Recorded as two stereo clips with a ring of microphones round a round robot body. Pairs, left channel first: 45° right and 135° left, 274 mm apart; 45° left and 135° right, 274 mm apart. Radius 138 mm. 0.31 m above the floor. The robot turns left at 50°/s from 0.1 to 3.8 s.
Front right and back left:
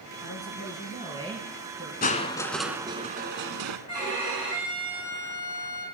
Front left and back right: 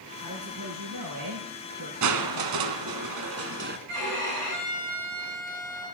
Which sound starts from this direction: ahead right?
A man speaking, at 0.2 s.